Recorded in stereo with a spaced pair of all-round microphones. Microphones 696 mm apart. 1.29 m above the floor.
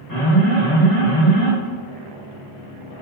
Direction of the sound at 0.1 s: 25° left (ahead or behind).